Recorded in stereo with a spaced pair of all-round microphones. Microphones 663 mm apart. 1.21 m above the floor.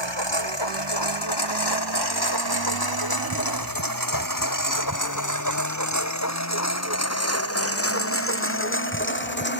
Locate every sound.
0.0 s a lawn mower: 40° left (ahead or behind); by 9.6 s 15° left (ahead or behind)